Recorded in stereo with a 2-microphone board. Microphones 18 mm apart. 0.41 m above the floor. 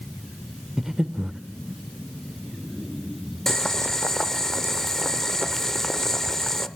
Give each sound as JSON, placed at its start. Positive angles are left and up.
{"t": 0.8, "sound": "breathing", "side_deg": -25, "distance_m": 0.5}
{"t": 3.5, "sound": "boiling", "side_deg": 20, "distance_m": 0.5}